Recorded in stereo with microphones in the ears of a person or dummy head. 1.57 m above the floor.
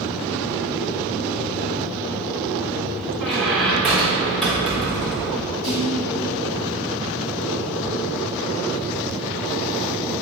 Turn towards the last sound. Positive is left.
turn(degrees=70)  # may be behind; listen again after turning